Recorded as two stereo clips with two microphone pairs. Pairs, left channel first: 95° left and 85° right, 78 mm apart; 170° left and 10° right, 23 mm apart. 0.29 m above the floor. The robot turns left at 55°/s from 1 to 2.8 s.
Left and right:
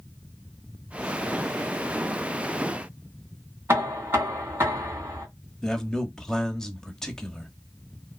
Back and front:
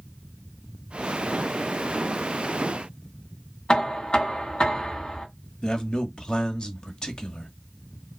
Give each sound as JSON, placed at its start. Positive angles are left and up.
{"t": 3.7, "sound": "knocking", "azimuth_deg": -145, "distance_m": 2.5}
{"t": 5.6, "sound": "a man speaking", "azimuth_deg": 175, "distance_m": 1.1}